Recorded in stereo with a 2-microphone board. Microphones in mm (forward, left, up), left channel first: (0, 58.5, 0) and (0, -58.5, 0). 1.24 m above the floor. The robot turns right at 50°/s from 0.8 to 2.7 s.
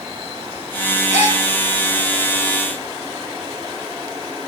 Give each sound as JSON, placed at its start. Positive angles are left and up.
{"t": 1.1, "sound": "a gasp", "side_deg": 75, "distance_m": 4.0}